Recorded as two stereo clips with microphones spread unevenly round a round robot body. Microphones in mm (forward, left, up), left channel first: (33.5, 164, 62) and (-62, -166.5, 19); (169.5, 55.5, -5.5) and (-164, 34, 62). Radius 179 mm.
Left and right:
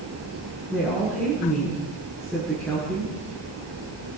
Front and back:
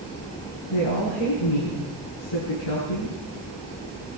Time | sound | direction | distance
0.7 | a woman speaking | 10° right | 8.5 m